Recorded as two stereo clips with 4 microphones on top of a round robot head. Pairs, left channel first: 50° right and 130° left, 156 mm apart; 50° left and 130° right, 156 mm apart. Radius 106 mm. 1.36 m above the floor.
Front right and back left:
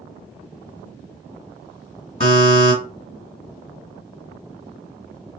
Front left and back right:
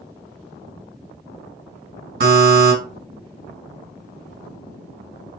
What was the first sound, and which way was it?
A buzzer, 110° right.